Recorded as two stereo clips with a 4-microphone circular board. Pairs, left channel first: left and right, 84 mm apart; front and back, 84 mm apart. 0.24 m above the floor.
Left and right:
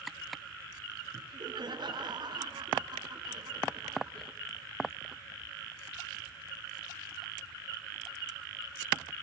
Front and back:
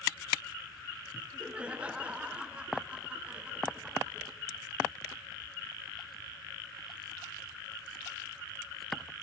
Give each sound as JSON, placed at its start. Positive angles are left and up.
{"t": 1.1, "sound": "laughter", "azimuth_deg": -105, "distance_m": 2.5}